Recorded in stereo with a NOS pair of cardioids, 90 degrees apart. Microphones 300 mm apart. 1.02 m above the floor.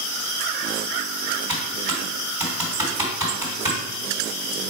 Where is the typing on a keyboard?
10° right, 2.5 m.